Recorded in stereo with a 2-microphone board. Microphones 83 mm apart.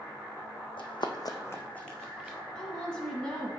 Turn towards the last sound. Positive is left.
turn(degrees=10)  # may be behind; listen again after turning